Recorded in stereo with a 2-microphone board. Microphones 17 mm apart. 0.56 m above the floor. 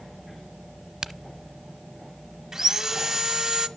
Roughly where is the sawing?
Right.